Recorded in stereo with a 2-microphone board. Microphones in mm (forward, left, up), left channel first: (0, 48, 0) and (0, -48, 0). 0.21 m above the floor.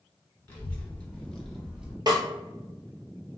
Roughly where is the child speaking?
Left.